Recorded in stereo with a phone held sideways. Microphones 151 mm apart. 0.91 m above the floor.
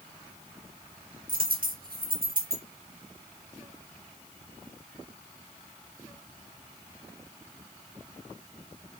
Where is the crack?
I don't hear a crack.